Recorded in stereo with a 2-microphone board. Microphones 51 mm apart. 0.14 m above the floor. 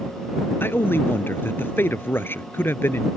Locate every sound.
0.6 s a man speaking: 50° left (ahead or behind)